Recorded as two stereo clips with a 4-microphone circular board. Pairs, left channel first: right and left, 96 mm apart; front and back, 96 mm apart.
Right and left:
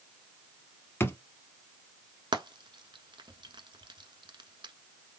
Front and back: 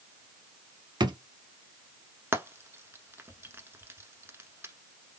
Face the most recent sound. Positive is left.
turn(degrees=115)